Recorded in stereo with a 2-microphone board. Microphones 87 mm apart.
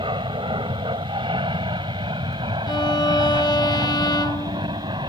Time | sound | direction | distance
0.0 | an aircraft | 75° right (ahead or behind) | ?
2.7 | a violin | 55° left (ahead or behind) | ?